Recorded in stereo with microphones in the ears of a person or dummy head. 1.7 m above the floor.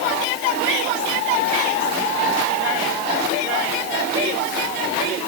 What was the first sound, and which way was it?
Only background noise.